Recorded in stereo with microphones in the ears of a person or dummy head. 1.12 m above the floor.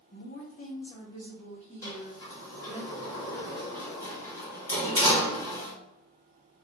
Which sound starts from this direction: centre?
A sliding door, at 1.8 s.